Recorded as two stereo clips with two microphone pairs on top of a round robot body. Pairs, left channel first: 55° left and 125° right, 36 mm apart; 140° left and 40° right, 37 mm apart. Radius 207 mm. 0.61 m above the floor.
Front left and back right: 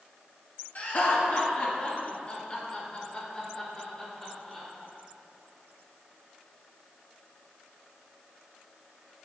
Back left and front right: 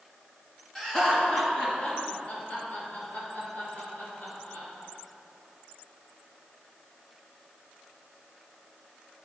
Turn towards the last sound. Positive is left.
turn(degrees=125)